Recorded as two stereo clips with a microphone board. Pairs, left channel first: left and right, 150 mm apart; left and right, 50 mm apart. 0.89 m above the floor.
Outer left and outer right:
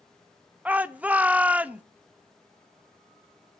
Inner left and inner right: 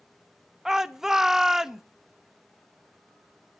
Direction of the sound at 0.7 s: 10° right (ahead or behind).